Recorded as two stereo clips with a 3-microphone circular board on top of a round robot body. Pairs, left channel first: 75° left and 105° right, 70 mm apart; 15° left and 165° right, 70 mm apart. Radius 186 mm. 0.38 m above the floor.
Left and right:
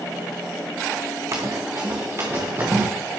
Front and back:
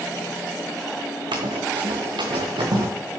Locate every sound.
1.3 s running footsteps: 155° right, 2.5 m; by 2.9 s 160° right, 3.5 m